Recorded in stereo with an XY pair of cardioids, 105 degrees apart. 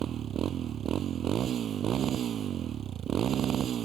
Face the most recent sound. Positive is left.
turn(degrees=-60)